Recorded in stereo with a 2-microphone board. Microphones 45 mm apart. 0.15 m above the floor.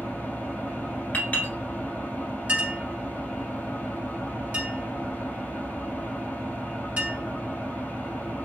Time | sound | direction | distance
0.0 | an engine running | 45° left (ahead or behind) | 2 m
1.1 | a clink | 40° left (ahead or behind) | 1.8 m
2.5 | a clink | 35° right (ahead or behind) | 1.2 m